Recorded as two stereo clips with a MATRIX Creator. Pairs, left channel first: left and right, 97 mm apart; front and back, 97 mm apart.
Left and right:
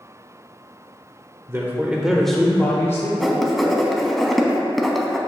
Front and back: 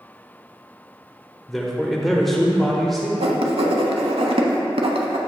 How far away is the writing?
About 0.8 m.